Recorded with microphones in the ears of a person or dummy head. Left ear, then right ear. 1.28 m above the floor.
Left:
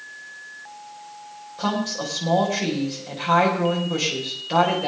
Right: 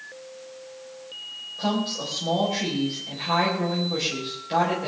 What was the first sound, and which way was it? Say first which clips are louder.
A woman speaking: left 2 dB; 30° left (ahead or behind).